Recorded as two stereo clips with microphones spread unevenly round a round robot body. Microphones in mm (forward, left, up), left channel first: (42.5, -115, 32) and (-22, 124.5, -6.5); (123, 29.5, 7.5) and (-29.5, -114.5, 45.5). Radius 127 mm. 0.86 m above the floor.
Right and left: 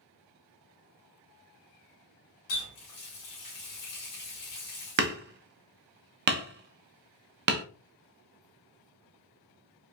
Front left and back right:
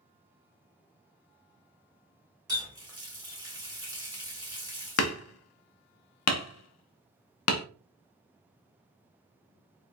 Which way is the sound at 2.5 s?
65° right.